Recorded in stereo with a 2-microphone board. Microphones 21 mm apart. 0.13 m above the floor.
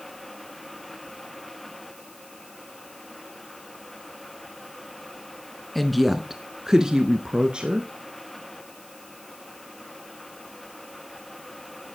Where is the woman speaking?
5° left (ahead or behind), 1.2 m; by 7.9 s 55° right (ahead or behind), 1.7 m.